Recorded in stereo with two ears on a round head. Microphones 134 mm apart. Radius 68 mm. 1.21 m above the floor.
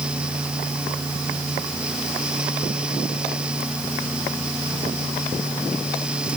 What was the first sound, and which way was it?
Only background noise.